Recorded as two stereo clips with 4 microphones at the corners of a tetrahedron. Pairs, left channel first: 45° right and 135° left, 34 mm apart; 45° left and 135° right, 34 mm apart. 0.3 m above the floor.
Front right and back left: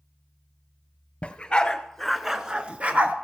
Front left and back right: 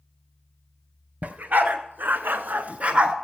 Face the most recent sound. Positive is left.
turn(degrees=165)